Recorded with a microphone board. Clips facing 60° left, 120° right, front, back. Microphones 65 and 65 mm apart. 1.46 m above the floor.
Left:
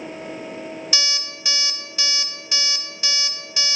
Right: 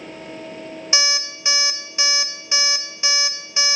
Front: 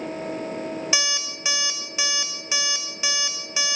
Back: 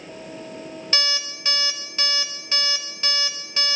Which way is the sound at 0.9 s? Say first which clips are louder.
Right 8 dB, even; 75° right.